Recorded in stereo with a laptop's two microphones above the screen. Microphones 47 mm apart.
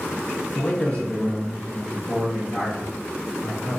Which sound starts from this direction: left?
A man speaking, at 0.6 s.